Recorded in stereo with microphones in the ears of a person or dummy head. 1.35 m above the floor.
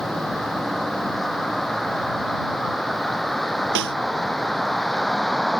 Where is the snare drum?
65° right (ahead or behind).